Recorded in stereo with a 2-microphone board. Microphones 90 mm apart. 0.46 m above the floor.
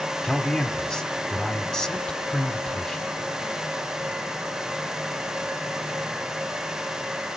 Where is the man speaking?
10° left (ahead or behind), 1.2 m.